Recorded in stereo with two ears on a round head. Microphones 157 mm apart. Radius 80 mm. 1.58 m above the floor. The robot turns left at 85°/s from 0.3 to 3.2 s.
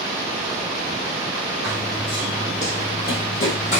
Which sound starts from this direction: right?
Running footsteps, at 1.6 s.